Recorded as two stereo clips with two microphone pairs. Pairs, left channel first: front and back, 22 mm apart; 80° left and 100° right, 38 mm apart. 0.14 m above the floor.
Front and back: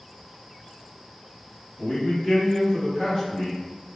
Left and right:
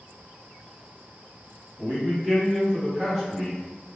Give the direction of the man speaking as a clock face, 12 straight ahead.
2 o'clock.